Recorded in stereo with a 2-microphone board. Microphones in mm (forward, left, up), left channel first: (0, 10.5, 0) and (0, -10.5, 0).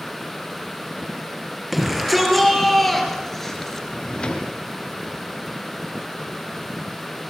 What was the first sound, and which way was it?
A shout, centre (ahead or behind).